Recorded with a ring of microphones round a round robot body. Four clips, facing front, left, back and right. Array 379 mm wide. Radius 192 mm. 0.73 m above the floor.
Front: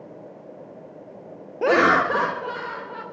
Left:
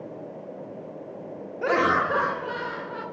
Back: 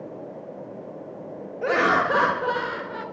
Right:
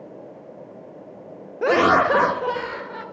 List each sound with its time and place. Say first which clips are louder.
1.6 s laughter: right 6 dB, front 3 dB; 35° right, 0.8 m; by 3.0 s 135° right, 1.4 m